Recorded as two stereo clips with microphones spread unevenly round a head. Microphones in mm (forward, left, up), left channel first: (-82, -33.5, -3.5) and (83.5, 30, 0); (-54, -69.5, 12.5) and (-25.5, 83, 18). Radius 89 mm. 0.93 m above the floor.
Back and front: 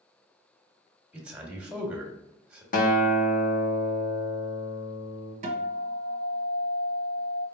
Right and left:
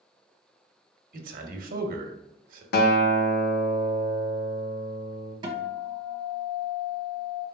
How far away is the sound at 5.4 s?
About 0.9 m.